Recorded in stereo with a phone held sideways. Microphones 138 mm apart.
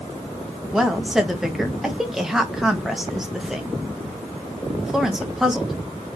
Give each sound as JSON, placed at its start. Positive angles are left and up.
{"t": 0.7, "sound": "a woman speaking", "side_deg": -5, "distance_m": 1.1}